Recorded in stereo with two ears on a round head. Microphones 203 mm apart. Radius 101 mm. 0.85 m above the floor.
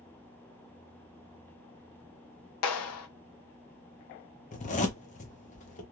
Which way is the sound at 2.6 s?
75° left (ahead or behind).